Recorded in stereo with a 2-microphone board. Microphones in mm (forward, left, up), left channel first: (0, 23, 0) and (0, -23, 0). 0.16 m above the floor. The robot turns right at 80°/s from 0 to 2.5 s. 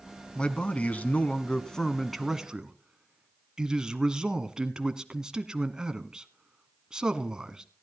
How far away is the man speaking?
About 1.3 m.